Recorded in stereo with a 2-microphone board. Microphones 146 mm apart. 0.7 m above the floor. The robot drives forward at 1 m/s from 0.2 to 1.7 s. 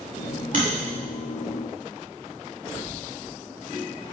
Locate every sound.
0.5 s a finger snap: 65° right (ahead or behind), 2.5 m